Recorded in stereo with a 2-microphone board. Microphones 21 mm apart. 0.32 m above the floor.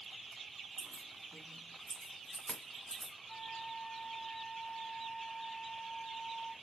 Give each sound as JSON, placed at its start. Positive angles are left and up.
{"t": 0.8, "sound": "keys jangling", "side_deg": 70, "distance_m": 2.5}
{"t": 3.3, "sound": "a flute", "side_deg": 60, "distance_m": 0.7}